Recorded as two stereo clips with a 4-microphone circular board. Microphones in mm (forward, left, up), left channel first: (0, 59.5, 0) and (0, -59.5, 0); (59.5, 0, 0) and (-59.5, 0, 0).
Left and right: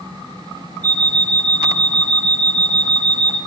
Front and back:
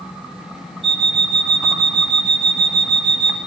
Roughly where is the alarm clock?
Ahead.